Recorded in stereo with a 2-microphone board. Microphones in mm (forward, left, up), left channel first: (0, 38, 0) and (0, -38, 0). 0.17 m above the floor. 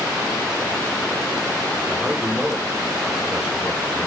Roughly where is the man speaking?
Centre.